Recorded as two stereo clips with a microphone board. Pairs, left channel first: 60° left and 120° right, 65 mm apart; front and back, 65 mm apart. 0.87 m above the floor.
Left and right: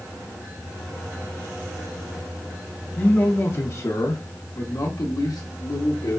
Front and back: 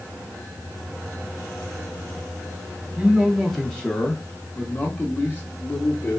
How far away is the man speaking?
About 0.8 m.